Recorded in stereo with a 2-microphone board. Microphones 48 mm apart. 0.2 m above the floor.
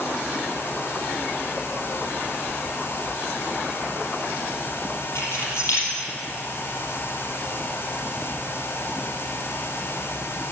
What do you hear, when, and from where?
5.2 s keys jangling: 60° left (ahead or behind), 4.5 m